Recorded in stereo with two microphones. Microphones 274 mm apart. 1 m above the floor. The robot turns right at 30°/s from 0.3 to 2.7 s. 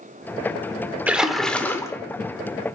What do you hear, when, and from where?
1.1 s a splash: 5° right (ahead or behind), 1.1 m; by 1.9 s 10° left (ahead or behind), 1.1 m